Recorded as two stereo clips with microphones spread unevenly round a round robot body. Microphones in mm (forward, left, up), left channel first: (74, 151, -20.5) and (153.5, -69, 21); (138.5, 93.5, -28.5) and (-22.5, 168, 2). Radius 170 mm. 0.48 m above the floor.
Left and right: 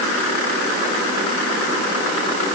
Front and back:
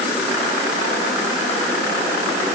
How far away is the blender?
I don't hear a blender.